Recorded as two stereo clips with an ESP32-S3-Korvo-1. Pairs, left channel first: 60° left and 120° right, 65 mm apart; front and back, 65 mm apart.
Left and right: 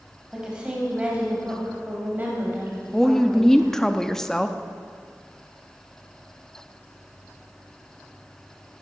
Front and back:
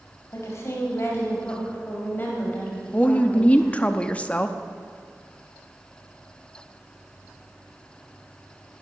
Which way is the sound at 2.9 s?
10° right.